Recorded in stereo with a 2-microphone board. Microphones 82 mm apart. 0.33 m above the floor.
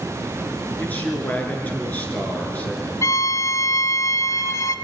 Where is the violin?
40° left (ahead or behind), 0.7 m.